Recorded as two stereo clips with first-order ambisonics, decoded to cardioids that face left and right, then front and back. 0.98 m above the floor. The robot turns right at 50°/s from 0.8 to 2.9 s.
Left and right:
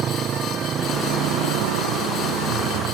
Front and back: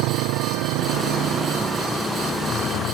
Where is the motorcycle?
150° right; by 2.9 s 45° right.